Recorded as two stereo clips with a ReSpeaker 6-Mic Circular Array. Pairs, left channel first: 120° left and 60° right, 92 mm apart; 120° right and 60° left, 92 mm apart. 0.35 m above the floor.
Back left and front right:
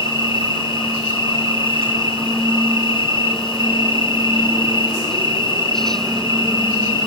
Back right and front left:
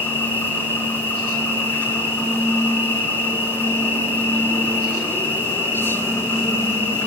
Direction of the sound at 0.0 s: 50° right.